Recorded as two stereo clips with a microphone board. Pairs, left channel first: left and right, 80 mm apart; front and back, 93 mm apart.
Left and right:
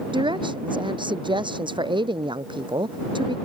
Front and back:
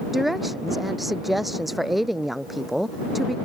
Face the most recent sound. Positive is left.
turn(degrees=-90)